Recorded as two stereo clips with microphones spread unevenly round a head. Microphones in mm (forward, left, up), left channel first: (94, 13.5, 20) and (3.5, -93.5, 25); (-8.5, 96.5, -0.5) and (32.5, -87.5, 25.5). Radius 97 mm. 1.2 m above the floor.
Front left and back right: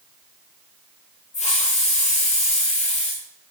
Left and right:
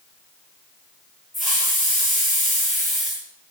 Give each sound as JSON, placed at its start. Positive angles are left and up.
{"t": 1.3, "sound": "a hiss", "azimuth_deg": 10, "distance_m": 6.5}